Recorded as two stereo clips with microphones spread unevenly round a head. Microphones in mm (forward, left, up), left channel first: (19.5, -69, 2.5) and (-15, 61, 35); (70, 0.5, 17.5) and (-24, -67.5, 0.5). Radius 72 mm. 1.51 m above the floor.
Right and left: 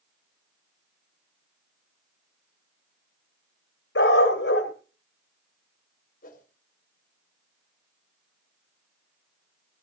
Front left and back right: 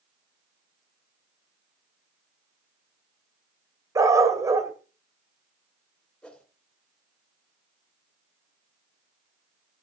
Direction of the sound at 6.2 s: 40° right.